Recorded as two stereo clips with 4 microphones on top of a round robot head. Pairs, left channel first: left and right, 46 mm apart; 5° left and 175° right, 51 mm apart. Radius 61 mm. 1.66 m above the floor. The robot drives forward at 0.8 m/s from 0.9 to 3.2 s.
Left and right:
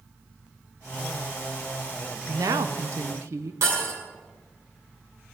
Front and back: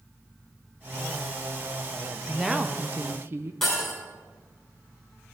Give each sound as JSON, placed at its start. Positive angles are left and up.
{"t": 2.3, "sound": "a woman speaking", "azimuth_deg": -80, "distance_m": 0.9}
{"t": 3.6, "sound": "breaking glass", "azimuth_deg": -80, "distance_m": 9.5}